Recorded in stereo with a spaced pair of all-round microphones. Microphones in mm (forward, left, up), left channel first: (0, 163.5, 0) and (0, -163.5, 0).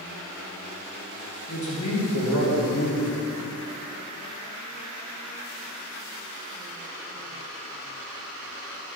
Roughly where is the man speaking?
Left.